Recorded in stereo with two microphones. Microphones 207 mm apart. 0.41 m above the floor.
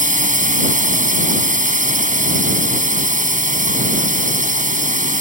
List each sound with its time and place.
0.0 s a drone: 40° right (ahead or behind)